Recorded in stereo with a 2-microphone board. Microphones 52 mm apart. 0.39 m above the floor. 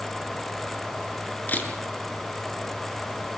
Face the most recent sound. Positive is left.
turn(degrees=35)  # may be behind; listen again after turning